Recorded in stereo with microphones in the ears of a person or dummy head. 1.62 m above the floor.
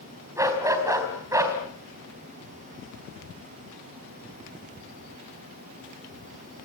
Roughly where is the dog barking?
Centre.